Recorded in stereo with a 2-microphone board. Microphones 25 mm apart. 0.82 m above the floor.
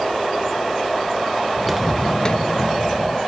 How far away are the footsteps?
About 0.8 m.